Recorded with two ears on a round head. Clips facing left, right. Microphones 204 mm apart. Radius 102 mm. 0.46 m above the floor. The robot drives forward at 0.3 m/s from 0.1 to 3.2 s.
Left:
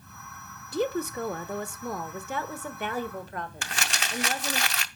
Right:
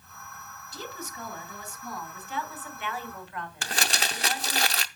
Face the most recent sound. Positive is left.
turn(degrees=-30)  # may be behind; listen again after turning